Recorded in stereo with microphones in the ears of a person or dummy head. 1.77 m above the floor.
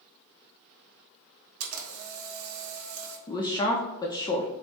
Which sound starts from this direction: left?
A woman speaking, at 3.3 s.